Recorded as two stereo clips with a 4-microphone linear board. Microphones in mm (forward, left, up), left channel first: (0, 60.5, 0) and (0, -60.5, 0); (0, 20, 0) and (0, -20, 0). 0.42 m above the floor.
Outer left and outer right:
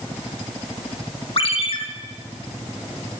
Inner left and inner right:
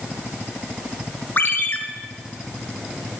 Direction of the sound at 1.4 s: 50° left (ahead or behind).